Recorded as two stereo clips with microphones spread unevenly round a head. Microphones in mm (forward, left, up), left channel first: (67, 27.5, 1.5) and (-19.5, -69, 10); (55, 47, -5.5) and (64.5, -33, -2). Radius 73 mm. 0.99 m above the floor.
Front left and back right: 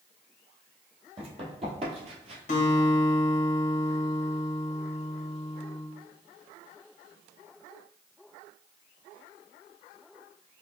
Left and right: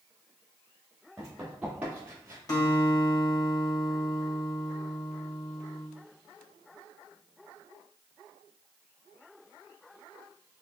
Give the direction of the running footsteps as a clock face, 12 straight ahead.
6 o'clock.